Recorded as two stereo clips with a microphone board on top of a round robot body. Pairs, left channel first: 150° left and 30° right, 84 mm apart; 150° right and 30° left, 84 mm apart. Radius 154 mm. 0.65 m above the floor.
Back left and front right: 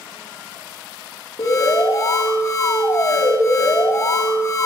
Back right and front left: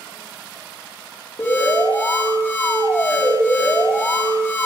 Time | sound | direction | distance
1.4 | an alarm | 165° left | 2.5 m